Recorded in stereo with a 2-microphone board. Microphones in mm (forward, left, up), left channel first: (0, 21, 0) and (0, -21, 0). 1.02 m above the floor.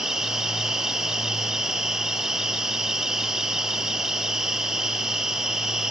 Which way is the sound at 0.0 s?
15° right (ahead or behind).